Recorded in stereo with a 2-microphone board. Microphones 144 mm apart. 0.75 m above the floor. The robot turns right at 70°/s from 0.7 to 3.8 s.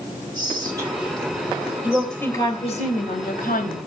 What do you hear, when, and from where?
0.3 s whispering: 30° right, 7.5 m; by 2.8 s 120° left, 7.5 m
1.8 s a woman speaking: 15° right, 3 m; by 3.8 s 125° left, 3 m